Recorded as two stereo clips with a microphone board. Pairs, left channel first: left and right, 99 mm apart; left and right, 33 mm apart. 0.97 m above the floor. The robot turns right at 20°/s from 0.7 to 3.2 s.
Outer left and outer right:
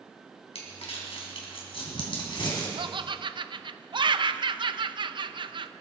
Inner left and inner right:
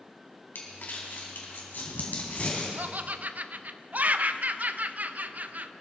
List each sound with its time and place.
0.6 s crumpling: 80° left, 3.5 m; by 2.7 s 45° left (ahead or behind), 3.5 m
2.8 s laughter: 55° right (ahead or behind), 0.6 m